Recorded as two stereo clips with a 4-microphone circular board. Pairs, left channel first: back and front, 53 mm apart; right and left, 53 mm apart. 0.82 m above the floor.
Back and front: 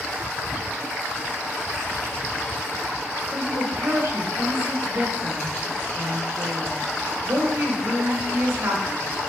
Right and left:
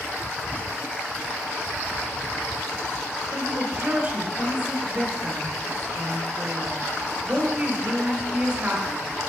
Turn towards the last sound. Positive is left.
turn(degrees=30)